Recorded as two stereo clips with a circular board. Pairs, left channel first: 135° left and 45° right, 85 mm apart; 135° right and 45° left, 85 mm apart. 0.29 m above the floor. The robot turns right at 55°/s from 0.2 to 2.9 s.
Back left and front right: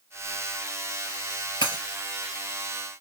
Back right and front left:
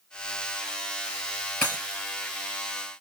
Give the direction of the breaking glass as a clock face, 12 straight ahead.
7 o'clock.